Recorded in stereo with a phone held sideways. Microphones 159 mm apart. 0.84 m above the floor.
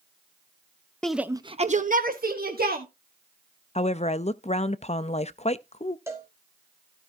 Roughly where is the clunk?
I don't hear a clunk.